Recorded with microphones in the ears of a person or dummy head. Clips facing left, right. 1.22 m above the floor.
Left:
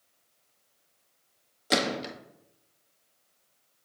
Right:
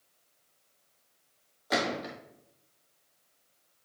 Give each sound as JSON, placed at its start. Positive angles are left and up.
{"t": 1.7, "sound": "a gunshot", "side_deg": 45, "distance_m": 1.3}